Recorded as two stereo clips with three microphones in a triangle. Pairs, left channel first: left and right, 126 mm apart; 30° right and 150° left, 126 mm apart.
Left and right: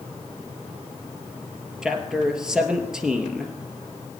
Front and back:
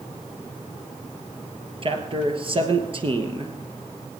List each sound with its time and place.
1.8 s a man speaking: 175° right, 2.5 m